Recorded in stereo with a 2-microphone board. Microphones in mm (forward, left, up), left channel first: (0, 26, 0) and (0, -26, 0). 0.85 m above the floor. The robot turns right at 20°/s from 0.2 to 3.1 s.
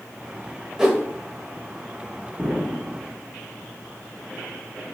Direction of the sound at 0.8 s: 10° right (ahead or behind).